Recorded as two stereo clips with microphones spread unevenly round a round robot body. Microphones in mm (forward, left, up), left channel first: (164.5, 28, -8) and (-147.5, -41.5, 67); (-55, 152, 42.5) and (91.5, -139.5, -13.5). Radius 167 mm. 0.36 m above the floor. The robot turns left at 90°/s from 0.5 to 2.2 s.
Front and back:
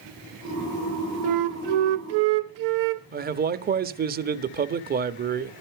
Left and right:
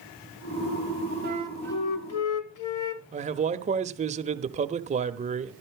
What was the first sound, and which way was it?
A flute, 115° right.